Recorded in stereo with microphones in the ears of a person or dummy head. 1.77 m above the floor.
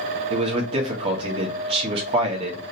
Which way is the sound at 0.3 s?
25° right (ahead or behind).